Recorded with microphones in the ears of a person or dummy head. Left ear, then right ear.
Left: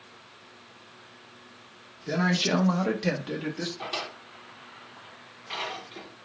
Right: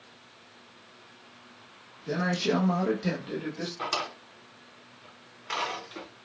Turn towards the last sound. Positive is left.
turn(degrees=-65)  # may be behind; listen again after turning